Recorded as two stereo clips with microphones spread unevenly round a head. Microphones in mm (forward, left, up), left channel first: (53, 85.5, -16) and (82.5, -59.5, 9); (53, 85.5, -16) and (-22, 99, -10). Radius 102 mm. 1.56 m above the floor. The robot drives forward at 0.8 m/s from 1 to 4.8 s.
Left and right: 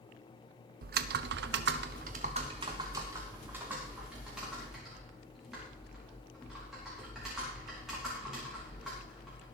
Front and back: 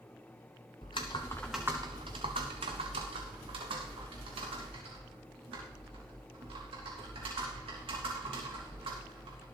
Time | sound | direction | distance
0.8 | typing on a keyboard | 60° right | 0.7 m